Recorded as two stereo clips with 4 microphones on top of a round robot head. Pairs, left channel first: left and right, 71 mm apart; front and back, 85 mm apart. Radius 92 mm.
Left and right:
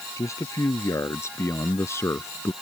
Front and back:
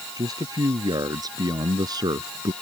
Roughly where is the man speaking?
Behind left.